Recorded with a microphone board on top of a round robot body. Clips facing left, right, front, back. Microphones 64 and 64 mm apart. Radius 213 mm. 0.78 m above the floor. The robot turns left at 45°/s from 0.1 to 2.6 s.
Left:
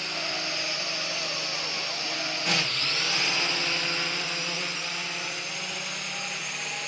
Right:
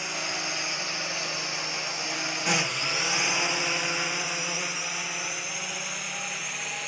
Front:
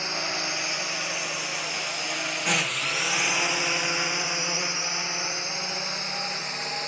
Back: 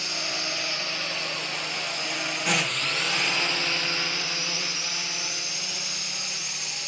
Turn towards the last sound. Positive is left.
turn(degrees=-5)